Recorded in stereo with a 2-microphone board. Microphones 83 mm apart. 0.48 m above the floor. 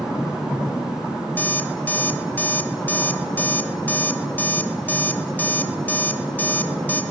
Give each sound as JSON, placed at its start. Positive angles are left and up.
{"t": 1.4, "sound": "an alarm clock", "side_deg": 20, "distance_m": 0.8}